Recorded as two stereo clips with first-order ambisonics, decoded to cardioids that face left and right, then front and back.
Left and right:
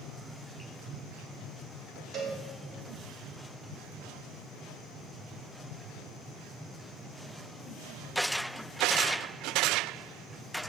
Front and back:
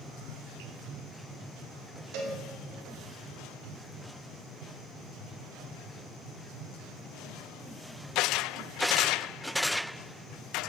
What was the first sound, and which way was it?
A cowbell, 155° right.